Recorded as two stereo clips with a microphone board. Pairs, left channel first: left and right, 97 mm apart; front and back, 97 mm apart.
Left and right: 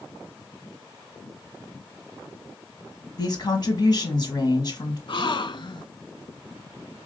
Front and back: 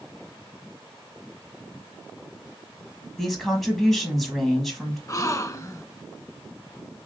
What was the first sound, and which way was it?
A woman speaking, 90° left.